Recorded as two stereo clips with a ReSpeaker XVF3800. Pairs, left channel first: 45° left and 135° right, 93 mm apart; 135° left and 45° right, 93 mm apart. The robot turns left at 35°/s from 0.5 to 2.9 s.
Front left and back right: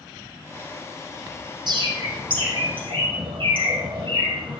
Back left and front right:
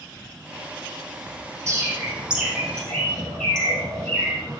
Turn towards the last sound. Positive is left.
turn(degrees=-145)